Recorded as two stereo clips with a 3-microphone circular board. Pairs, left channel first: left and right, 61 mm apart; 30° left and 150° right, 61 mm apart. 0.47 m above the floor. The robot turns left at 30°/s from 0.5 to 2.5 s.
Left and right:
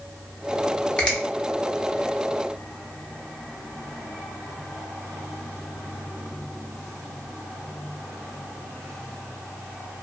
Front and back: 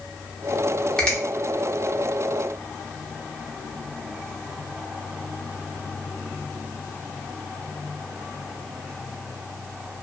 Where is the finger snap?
70° left, 0.7 m; by 1.2 s 65° left, 0.7 m.